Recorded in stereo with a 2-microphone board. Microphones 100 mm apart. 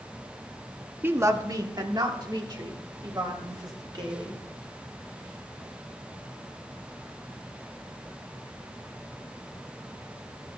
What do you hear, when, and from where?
1.0 s a woman speaking: 20° right (ahead or behind), 1.0 m; by 4.4 s 45° right (ahead or behind), 4.5 m